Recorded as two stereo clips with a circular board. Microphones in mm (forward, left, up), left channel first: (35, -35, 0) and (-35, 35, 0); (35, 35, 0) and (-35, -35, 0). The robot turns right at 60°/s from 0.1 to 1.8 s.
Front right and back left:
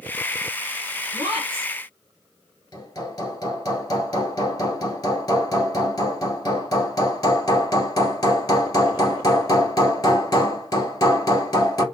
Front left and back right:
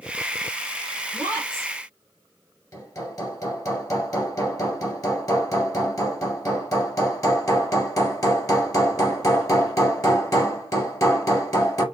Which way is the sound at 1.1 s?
10° right.